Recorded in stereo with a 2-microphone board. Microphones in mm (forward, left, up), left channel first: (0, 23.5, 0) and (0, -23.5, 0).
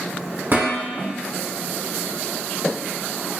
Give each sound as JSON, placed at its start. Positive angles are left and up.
{"t": 0.5, "sound": "dishes clattering", "side_deg": -45, "distance_m": 1.9}